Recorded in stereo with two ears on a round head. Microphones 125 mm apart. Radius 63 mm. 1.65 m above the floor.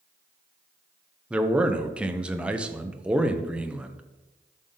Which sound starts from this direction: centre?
A man speaking, at 1.3 s.